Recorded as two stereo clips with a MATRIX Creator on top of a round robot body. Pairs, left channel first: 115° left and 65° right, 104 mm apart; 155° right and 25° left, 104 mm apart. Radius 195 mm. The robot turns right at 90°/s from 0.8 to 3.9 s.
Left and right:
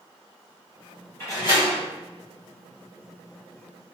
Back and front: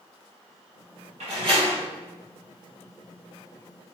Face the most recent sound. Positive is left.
turn(degrees=-75)